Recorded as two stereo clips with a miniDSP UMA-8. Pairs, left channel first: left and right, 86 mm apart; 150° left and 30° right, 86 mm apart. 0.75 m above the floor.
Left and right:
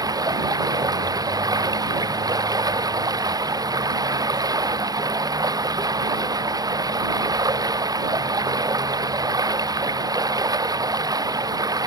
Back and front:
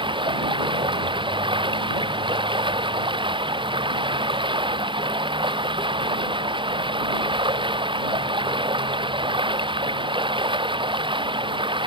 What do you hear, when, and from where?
0.0 s running water: 50° right